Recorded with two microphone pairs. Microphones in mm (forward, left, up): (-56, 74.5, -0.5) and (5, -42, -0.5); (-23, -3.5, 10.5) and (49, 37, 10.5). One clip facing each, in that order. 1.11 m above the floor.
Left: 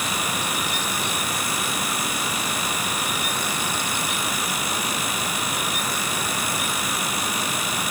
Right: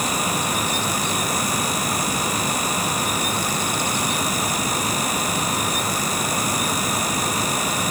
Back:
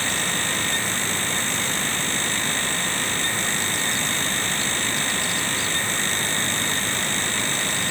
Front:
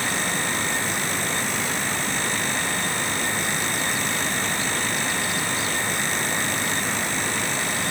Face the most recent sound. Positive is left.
No sound to turn to.